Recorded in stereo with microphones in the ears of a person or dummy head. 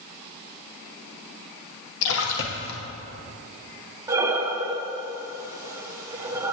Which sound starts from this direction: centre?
Breathing, at 4.1 s.